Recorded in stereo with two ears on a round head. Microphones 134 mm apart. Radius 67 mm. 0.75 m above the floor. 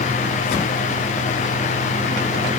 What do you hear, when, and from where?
Only background noise.